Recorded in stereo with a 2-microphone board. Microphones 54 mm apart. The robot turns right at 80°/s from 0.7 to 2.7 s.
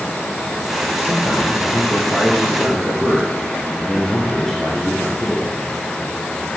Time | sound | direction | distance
1.0 | a man speaking | 35° left | 2.5 m